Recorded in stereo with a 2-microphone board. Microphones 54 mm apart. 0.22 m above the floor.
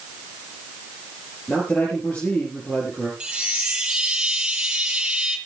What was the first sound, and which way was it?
A man speaking, 30° left (ahead or behind).